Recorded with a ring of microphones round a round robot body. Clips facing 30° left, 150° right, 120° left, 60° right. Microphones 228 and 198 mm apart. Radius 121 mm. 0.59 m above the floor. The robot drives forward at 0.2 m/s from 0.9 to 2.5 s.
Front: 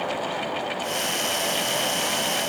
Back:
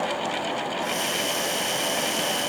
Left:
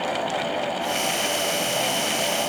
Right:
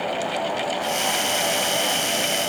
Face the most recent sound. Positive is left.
No sound to turn to.